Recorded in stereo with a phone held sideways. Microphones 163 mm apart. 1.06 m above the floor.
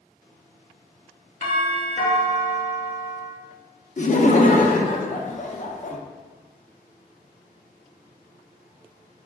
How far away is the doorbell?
About 1.0 m.